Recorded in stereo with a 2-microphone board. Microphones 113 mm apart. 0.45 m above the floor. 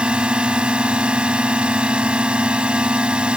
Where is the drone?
10° right (ahead or behind).